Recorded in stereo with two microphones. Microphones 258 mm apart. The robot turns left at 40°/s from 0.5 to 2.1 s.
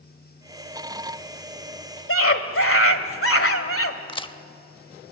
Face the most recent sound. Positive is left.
turn(degrees=20)  # may be behind; listen again after turning